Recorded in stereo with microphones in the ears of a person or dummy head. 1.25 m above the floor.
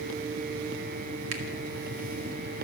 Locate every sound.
1.3 s a finger snap: 80° right, 1.9 m